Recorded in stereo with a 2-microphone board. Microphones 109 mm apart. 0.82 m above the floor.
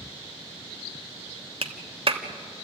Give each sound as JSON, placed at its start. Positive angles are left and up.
{"t": 1.6, "sound": "a clap", "side_deg": -60, "distance_m": 1.3}